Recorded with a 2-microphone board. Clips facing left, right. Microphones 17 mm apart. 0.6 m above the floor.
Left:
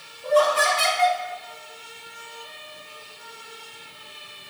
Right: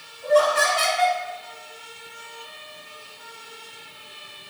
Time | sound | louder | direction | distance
0.2 | laughter | right 1 dB | 45° right (ahead or behind) | 1.6 m